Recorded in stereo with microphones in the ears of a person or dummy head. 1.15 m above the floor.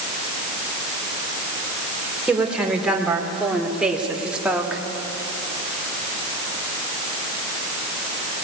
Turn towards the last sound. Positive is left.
turn(degrees=-5)  # may be behind; listen again after turning